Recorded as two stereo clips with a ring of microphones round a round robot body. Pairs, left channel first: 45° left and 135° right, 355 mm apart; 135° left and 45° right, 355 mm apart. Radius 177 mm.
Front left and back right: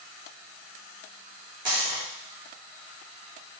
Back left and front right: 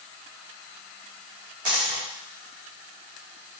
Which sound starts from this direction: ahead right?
A dropped coin, at 1.6 s.